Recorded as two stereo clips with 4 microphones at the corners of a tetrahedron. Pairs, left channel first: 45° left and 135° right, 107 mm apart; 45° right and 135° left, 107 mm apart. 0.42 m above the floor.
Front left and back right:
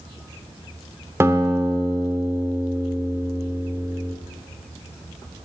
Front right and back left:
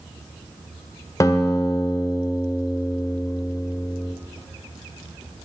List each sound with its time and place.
1.2 s a guitar: 80° right, 1.1 m